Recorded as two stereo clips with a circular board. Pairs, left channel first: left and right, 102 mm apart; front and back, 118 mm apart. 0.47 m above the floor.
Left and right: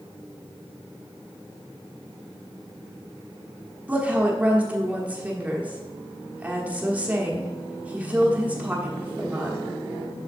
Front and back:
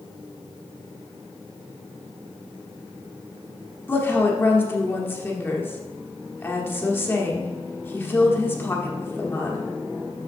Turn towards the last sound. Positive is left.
turn(degrees=-35)